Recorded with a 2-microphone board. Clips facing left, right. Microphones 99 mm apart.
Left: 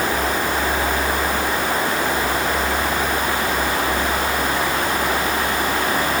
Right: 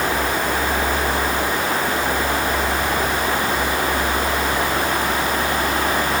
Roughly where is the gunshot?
I don't hear a gunshot.